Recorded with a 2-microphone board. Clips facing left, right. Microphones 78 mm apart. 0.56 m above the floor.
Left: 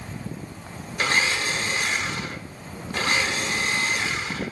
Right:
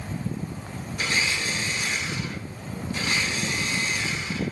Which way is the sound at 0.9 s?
60° left (ahead or behind).